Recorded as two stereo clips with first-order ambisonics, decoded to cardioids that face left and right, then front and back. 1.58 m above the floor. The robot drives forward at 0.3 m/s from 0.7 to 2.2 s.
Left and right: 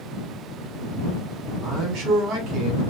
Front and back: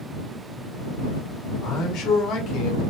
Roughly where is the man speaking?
Ahead right.